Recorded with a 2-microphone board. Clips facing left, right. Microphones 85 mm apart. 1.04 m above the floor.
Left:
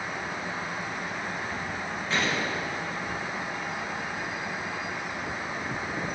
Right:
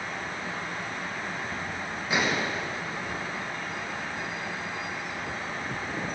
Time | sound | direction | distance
2.1 | a gunshot | 10° right (ahead or behind) | 1.0 m